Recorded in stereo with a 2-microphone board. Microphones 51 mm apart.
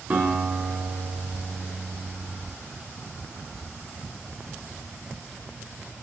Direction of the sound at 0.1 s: 25° right (ahead or behind).